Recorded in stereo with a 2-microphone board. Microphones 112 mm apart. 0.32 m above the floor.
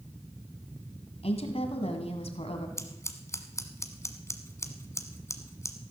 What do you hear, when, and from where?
1.2 s a woman speaking: 65° left (ahead or behind), 1.9 m
2.8 s scissors: 25° left (ahead or behind), 1.3 m